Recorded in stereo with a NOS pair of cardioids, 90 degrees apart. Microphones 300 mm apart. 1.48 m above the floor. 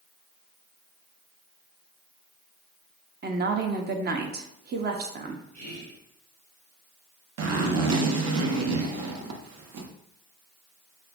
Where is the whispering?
65° right, 1.5 m.